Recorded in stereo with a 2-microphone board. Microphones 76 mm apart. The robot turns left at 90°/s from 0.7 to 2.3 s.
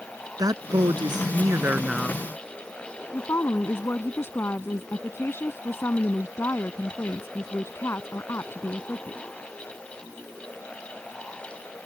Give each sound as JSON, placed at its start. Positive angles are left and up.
{"t": 0.4, "sound": "a man speaking", "azimuth_deg": -60}
{"t": 3.1, "sound": "a woman speaking", "side_deg": 35}